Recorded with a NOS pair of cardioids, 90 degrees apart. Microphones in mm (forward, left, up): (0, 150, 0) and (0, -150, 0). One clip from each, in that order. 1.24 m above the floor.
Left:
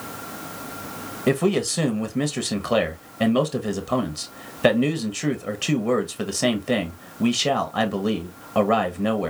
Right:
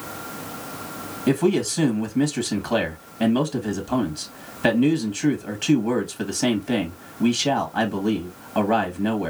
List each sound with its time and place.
1.3 s a man speaking: 20° left, 1.2 m